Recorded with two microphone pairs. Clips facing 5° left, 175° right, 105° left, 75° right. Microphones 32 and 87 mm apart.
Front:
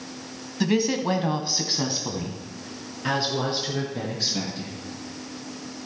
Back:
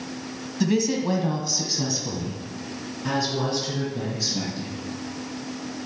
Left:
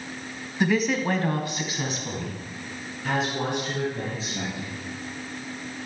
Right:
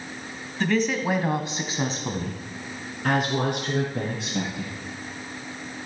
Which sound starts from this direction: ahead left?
A woman speaking, at 0.6 s.